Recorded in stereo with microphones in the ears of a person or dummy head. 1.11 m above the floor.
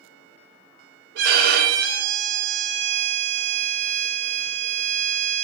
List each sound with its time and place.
1.1 s a violin: 70° right (ahead or behind), 3.5 m